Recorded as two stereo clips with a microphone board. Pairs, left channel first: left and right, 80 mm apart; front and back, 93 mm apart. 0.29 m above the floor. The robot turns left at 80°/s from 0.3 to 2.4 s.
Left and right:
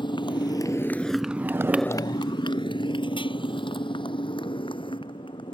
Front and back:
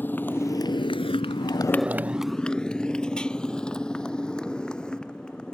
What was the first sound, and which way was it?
A motorcycle, 70° left.